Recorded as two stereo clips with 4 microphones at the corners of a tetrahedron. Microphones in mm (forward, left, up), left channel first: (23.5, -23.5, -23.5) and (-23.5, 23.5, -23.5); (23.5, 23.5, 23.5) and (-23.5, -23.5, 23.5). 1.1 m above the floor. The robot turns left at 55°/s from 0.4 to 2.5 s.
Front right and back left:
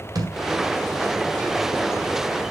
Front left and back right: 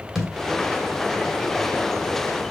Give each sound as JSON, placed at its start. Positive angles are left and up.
{"t": 0.1, "sound": "a thud", "azimuth_deg": 135, "distance_m": 2.5}